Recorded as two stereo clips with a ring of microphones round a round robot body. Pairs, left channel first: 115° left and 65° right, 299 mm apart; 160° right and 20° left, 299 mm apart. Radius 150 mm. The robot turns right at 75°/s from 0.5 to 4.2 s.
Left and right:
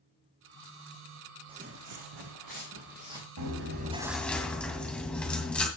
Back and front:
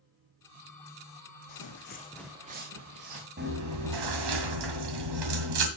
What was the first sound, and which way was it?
Footsteps, 140° right.